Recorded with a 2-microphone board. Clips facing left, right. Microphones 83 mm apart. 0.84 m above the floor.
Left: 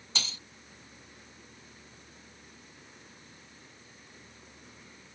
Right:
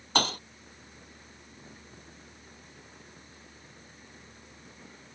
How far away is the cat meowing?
I don't hear a cat meowing.